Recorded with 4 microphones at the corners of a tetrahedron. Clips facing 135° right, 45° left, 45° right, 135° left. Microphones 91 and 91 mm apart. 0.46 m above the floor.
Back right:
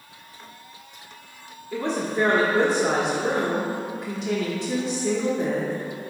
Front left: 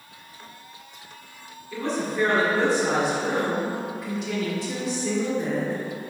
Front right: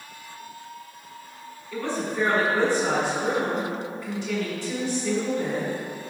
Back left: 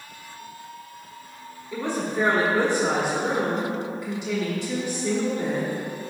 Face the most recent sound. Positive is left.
turn(degrees=-175)